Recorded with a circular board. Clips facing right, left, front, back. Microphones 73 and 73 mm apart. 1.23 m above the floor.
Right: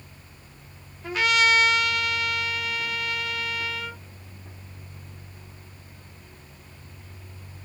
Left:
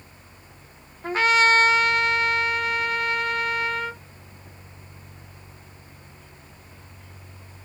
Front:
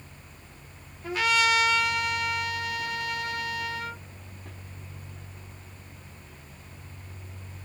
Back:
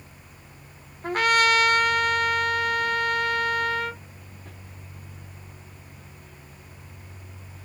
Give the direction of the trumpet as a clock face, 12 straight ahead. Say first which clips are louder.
Left 3 dB, back 4 dB; 7 o'clock.